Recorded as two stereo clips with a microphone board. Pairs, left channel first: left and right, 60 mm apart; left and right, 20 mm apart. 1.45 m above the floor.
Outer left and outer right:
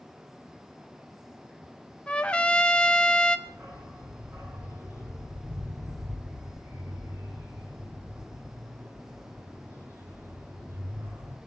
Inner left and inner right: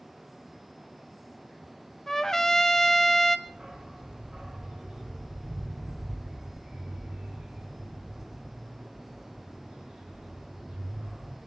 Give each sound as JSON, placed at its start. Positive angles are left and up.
{"t": 2.1, "sound": "a trumpet", "side_deg": 15, "distance_m": 1.0}
{"t": 3.5, "sound": "a dog barking", "side_deg": -45, "distance_m": 4.5}